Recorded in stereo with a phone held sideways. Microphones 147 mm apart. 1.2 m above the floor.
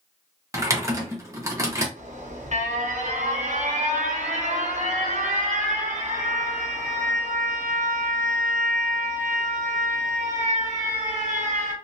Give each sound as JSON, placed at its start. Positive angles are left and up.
{"t": 0.5, "sound": "typing on a keyboard", "side_deg": -20, "distance_m": 0.9}
{"t": 2.0, "sound": "an alarm", "side_deg": -60, "distance_m": 0.8}